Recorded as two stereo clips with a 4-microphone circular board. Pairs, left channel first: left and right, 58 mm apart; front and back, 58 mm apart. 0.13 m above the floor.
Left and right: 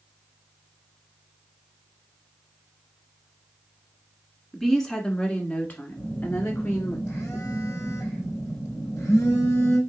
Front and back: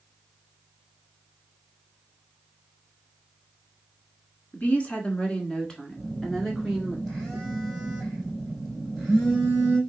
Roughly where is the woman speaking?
Ahead.